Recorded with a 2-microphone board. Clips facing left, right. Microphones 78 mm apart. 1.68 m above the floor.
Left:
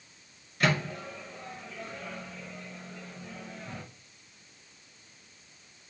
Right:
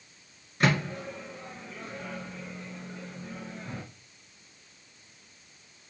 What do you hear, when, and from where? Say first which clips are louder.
0.6 s a microwave: right 2 dB; 20° right (ahead or behind), 1.9 m